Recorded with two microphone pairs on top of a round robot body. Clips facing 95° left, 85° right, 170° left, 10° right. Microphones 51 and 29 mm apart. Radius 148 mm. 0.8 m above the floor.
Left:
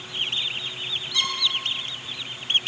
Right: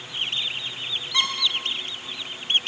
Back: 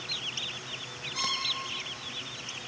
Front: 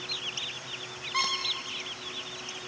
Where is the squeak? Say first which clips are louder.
Right 2 dB, front 4 dB; 25° right, 1.0 m.